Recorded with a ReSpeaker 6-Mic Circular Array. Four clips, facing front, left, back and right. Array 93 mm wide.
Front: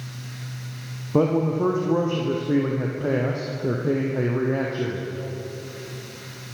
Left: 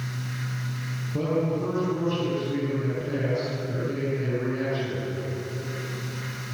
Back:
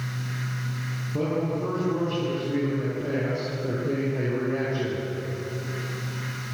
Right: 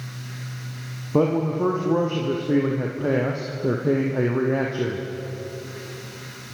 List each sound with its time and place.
1.1 s a man speaking: 50° right, 5.5 m; by 5.1 s 75° right, 4.5 m